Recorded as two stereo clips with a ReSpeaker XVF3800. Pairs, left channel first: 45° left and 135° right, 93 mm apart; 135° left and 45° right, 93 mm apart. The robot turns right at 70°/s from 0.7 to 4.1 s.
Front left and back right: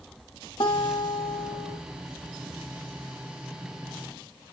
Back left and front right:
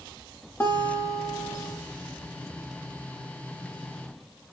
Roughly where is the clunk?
I don't hear a clunk.